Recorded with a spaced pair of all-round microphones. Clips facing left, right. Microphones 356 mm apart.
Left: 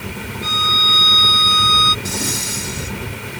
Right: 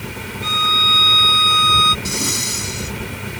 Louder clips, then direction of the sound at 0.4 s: Even; 25° left (ahead or behind).